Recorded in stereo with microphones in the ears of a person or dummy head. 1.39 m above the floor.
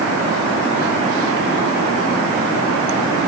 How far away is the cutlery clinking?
I don't hear cutlery clinking.